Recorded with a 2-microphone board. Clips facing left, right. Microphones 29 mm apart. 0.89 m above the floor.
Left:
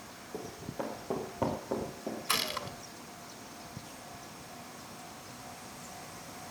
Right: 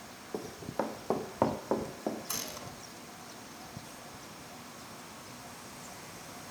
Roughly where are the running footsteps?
Right.